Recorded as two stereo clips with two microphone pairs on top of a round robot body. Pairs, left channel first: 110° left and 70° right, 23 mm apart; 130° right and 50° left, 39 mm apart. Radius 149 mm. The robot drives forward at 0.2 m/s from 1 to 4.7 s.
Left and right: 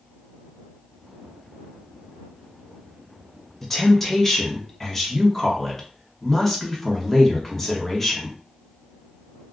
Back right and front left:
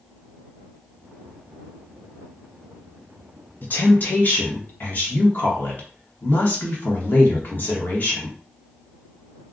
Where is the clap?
I don't hear a clap.